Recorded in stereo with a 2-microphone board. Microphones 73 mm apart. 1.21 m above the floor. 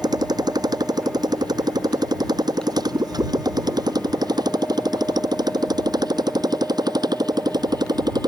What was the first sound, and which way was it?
A motorcycle, 65° right (ahead or behind).